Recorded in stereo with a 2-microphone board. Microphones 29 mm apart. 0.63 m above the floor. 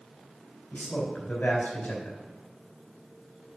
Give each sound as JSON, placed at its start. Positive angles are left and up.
{"t": 0.7, "sound": "a man speaking", "side_deg": 70, "distance_m": 3.5}